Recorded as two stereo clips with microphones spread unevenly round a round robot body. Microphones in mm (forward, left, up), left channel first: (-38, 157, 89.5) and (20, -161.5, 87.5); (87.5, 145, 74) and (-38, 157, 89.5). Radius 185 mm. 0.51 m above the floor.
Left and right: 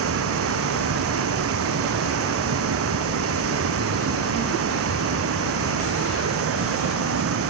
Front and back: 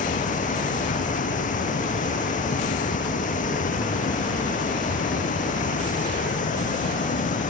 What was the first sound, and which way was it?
Running water, 30° right.